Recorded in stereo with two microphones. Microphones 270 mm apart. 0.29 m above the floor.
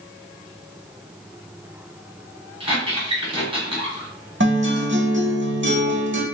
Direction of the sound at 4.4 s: 45° right (ahead or behind).